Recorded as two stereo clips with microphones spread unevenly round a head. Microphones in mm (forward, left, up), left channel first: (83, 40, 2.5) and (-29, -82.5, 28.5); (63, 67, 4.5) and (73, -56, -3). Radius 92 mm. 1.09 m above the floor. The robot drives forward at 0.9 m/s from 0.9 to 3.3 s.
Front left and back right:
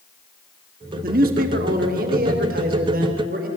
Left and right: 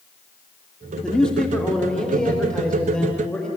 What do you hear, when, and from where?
1.0 s a man speaking: straight behind, 1.9 m